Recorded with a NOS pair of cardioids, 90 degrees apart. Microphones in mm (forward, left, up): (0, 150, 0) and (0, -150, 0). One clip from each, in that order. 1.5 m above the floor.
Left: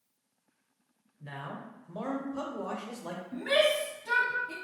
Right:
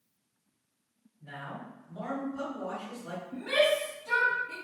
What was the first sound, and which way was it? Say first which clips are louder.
A man speaking: even; 65° left.